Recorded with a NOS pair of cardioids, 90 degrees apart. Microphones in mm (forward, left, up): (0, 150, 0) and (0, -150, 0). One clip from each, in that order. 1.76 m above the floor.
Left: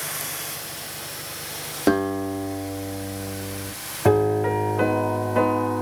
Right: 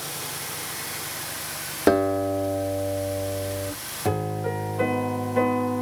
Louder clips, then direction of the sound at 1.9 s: Right 2 dB; 10° right.